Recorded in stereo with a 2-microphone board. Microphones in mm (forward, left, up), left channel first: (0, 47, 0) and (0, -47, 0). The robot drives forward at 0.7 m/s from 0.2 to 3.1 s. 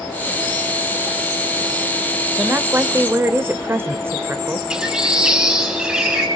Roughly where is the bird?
Centre.